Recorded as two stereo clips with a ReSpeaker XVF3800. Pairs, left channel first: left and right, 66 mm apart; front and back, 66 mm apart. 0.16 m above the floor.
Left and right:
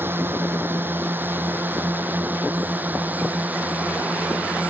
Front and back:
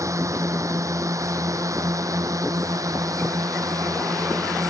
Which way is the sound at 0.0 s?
145° right.